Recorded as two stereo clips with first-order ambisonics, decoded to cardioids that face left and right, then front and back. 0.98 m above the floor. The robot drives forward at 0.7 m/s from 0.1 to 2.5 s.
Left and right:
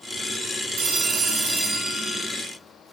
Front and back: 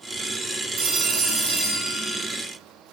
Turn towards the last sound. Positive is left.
turn(degrees=-160)